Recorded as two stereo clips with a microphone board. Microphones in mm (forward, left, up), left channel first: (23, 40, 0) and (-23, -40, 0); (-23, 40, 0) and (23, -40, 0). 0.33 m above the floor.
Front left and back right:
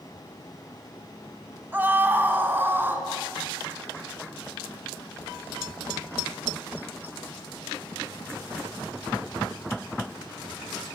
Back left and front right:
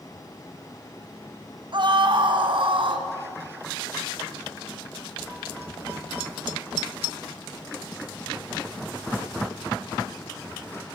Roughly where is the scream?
Ahead right.